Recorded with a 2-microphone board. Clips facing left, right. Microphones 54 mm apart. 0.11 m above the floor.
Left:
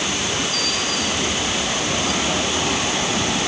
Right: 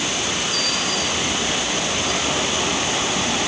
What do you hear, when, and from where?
Only background noise.